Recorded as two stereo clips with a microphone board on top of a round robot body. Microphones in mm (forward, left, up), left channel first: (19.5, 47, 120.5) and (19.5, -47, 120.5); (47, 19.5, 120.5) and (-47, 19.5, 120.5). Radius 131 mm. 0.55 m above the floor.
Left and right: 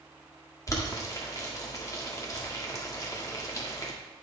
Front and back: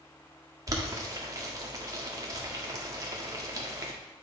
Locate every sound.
0.7 s boiling: 135° left, 1.6 m